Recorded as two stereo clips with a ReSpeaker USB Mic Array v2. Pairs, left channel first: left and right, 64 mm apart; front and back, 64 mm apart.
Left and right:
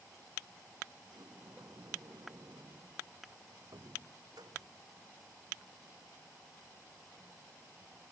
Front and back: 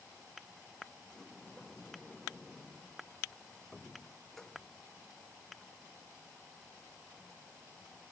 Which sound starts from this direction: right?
A sliding door, at 1.0 s.